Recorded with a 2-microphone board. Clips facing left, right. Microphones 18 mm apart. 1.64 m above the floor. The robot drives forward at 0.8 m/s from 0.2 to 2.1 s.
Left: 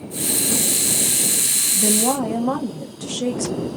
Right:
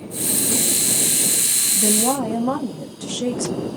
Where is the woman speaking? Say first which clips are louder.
Even; 25° left (ahead or behind), 1.3 m; by 3.7 s 20° left (ahead or behind), 1.5 m.